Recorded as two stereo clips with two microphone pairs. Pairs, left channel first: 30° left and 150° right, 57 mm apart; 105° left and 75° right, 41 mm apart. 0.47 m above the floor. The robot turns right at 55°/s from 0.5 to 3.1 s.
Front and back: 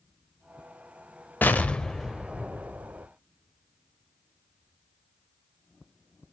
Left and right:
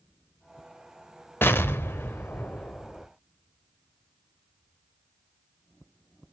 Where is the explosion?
85° left, 0.9 m; by 3.1 s 175° left, 0.9 m.